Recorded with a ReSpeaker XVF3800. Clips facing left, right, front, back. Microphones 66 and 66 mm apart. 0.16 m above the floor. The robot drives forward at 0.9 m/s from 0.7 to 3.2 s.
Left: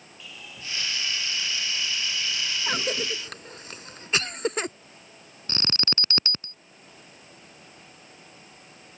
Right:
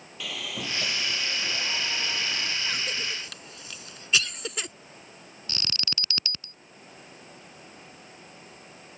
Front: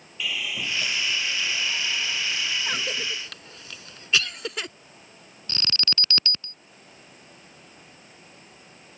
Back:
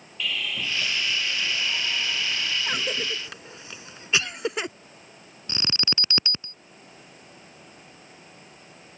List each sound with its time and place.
0.2 s sawing: 80° right; by 2.6 s 105° right
2.7 s a cough: 95° left; by 4.7 s 120° left
5.5 s an alarm: 120° left